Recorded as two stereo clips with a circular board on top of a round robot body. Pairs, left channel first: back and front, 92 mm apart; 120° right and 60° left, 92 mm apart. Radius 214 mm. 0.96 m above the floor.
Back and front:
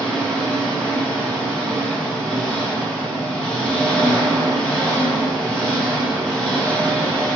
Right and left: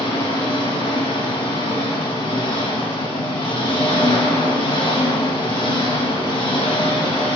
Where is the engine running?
95° right, 4.5 m.